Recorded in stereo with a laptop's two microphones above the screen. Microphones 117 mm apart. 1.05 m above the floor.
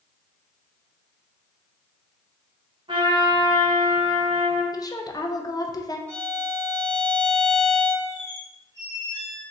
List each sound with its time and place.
2.9 s a trumpet: 45° right (ahead or behind), 1.2 m
4.7 s a woman speaking: 30° left (ahead or behind), 0.6 m
6.1 s a violin: 30° right (ahead or behind), 1.8 m
8.1 s a squeak: 85° right, 2 m